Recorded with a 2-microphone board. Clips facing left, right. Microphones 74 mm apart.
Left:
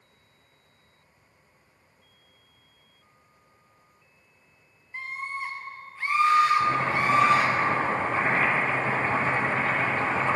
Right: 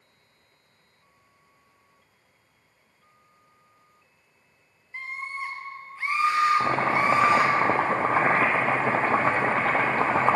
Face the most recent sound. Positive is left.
turn(degrees=-55)  # may be behind; listen again after turning